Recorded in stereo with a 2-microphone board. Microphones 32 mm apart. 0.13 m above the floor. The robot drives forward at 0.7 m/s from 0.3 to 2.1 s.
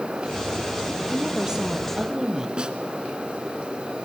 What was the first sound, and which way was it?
A woman speaking, 20° right (ahead or behind).